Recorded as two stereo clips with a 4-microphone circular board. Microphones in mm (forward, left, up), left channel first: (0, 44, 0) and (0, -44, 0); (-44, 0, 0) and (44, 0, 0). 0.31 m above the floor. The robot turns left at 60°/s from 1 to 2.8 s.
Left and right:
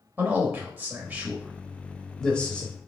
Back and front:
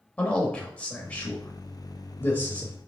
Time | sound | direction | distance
0.2 | a man speaking | 125° right | 0.9 m